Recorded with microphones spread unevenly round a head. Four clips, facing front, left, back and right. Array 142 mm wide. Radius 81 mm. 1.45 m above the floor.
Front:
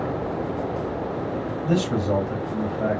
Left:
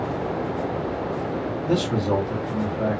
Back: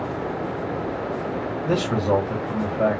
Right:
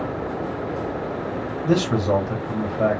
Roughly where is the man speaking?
Behind right.